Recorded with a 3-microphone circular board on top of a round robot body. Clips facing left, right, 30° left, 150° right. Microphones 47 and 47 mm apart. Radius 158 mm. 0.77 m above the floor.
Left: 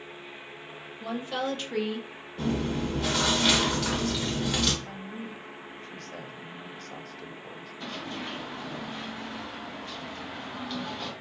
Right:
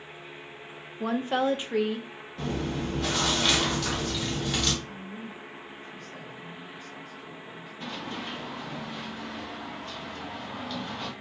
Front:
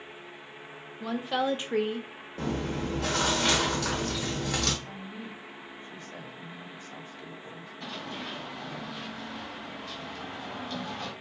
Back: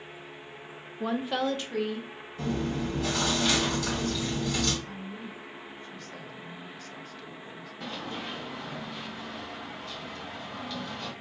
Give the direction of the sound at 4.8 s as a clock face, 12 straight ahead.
9 o'clock.